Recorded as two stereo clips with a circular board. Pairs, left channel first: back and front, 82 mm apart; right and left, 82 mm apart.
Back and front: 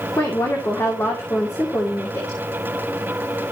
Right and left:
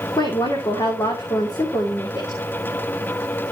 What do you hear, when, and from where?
0.2 s a woman speaking: 125° right, 2.5 m